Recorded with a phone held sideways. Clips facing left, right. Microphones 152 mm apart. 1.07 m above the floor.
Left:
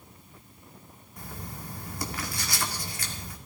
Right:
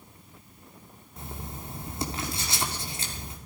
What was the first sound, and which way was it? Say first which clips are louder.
Writing: right 1 dB; 25° right (ahead or behind).